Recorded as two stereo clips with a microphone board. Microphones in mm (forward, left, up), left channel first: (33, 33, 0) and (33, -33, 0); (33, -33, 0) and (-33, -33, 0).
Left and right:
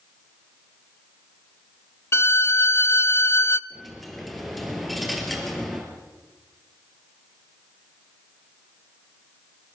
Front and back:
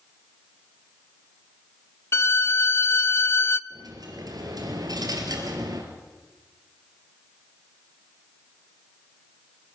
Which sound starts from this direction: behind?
A dropped coin, at 3.7 s.